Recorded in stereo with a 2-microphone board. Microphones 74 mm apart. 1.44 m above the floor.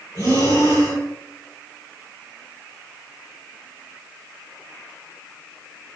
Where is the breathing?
55° left (ahead or behind), 1.3 m.